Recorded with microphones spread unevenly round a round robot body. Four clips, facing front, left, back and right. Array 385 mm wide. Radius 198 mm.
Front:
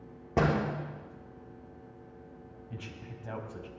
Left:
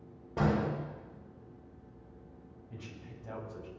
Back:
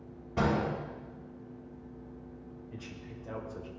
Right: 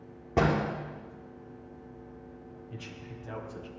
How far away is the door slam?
About 6 m.